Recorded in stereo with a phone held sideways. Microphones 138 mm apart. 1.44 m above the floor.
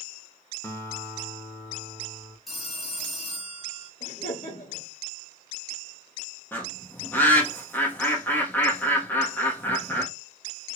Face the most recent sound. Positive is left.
turn(degrees=15)  # may be behind; listen again after turning